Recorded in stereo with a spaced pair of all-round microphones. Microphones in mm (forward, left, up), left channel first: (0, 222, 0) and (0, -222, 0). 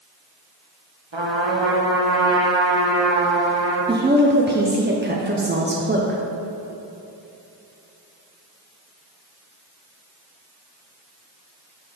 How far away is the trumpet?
About 1.3 m.